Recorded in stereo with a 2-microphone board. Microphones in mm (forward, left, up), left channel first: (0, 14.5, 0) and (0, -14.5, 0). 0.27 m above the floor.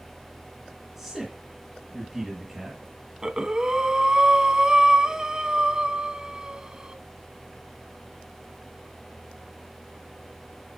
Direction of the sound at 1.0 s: 15° right (ahead or behind).